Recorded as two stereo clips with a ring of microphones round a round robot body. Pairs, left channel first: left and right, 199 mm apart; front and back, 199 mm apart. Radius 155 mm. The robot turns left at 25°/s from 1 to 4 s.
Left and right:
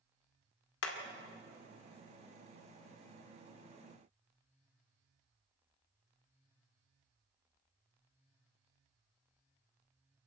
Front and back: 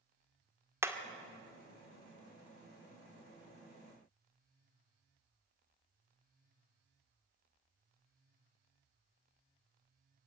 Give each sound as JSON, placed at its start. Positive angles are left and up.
{"t": 0.8, "sound": "hammering", "azimuth_deg": 100, "distance_m": 2.0}